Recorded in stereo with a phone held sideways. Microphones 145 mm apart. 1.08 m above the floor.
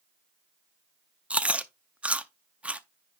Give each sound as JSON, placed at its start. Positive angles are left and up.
{"t": 1.3, "sound": "chewing", "side_deg": -10, "distance_m": 0.5}